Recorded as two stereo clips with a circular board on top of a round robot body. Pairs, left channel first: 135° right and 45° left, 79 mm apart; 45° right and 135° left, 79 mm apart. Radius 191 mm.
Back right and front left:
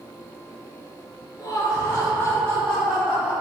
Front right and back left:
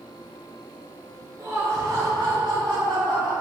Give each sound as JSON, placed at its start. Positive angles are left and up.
{"t": 1.4, "sound": "laughter", "azimuth_deg": -170, "distance_m": 2.5}